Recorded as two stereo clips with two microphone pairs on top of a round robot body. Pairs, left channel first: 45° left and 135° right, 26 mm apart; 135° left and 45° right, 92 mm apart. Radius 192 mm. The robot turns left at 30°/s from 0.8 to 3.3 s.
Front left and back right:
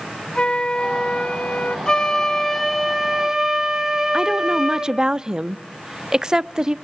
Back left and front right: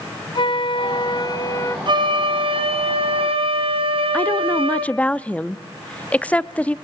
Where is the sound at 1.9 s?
10° right, 2.5 m; by 5.0 s 55° right, 2.5 m.